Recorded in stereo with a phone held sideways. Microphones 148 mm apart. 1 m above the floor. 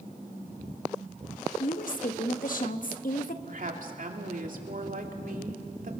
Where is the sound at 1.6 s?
65° left (ahead or behind), 1.4 m.